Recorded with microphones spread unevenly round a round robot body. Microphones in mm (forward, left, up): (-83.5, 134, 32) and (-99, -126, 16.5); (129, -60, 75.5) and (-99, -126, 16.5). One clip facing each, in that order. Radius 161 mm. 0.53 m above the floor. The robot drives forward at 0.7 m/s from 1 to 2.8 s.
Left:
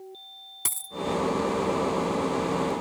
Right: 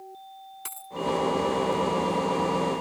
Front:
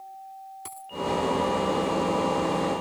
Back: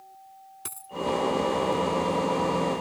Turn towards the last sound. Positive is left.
turn(degrees=145)